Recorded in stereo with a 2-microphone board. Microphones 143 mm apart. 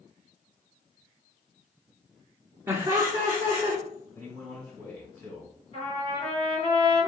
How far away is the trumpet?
About 1.8 m.